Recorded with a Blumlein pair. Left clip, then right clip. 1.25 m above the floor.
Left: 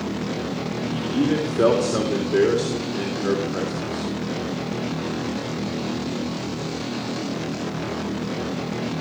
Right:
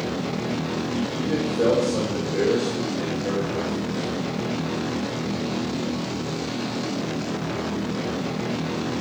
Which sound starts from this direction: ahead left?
A man speaking, at 0.9 s.